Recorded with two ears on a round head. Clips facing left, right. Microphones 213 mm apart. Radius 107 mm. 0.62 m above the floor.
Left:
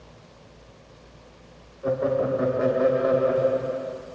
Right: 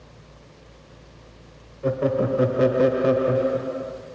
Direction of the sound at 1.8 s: 40° right (ahead or behind).